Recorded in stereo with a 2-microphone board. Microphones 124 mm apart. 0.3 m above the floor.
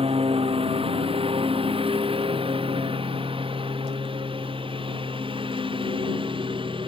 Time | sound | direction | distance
0.0 | a lawn mower | 50° right (ahead or behind) | ?